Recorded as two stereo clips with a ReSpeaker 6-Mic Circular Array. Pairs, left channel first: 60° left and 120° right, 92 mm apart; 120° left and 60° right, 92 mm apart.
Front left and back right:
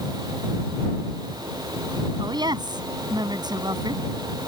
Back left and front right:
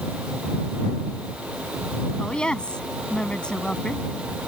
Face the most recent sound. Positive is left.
turn(degrees=-160)